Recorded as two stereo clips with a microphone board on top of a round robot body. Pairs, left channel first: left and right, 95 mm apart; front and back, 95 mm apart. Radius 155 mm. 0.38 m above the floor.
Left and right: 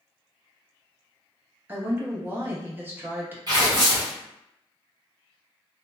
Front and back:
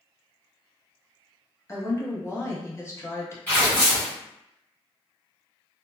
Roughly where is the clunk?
No clunk in this recording.